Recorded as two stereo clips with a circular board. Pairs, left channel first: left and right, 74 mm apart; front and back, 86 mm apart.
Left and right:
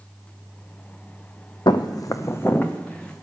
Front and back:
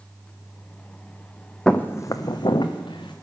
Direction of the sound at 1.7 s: 80° left.